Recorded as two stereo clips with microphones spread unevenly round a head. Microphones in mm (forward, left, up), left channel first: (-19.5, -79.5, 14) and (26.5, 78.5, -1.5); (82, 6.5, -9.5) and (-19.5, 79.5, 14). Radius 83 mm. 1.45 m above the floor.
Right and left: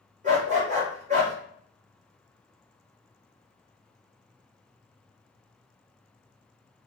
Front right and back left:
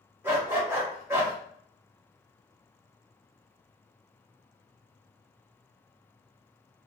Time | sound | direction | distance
0.2 | a dog barking | 100° left | 1.1 m